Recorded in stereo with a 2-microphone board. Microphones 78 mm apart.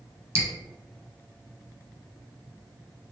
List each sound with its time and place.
0.3 s dripping: 35° right (ahead or behind), 0.7 m